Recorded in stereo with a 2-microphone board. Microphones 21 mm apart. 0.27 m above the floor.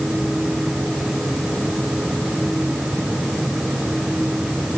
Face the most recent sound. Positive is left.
No sound to turn to.